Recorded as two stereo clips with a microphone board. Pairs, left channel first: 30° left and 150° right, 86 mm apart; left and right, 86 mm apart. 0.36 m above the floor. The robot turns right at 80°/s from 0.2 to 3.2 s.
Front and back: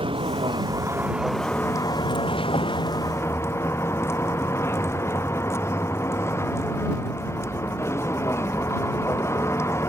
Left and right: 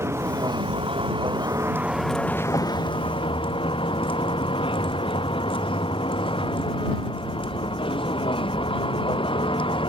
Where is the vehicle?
150° right; by 9.9 s 90° left.